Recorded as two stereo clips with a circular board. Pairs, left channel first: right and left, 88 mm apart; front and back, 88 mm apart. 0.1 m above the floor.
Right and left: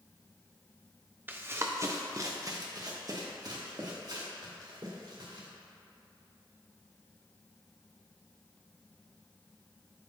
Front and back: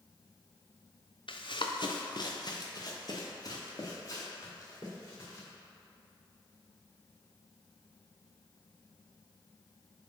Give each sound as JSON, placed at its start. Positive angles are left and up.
{"t": 1.3, "sound": "running footsteps", "azimuth_deg": 20, "distance_m": 0.8}